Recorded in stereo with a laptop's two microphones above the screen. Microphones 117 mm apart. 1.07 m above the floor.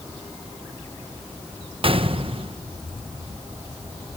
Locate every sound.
1.8 s a gunshot: 50° right (ahead or behind), 0.9 m